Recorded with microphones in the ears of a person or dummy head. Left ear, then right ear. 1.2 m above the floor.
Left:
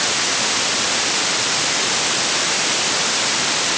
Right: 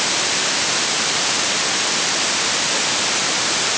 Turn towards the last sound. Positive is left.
No sound to turn to.